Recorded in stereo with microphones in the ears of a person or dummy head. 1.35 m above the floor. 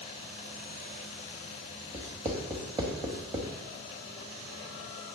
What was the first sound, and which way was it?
Writing, 20° right (ahead or behind).